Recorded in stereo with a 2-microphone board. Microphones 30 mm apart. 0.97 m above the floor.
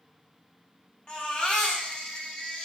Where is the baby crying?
30° left (ahead or behind), 0.7 m.